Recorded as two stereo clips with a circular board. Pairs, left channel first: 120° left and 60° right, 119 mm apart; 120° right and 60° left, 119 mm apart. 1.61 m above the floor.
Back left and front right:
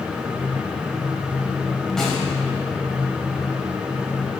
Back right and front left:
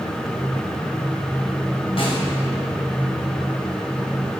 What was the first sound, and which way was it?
A snare drum, 155° right.